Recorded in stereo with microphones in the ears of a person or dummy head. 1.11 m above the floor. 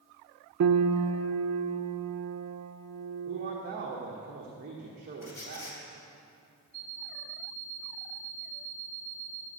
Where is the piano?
80° right, 0.5 m.